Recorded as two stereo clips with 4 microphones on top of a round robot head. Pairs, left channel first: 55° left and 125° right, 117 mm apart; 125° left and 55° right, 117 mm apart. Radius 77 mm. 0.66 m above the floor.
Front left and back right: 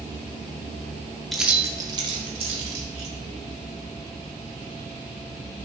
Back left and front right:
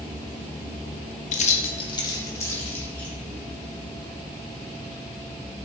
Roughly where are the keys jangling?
Behind left.